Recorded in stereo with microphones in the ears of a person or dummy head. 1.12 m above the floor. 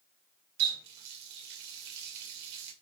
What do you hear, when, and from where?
0.6 s a running tap: 65° right (ahead or behind), 2.5 m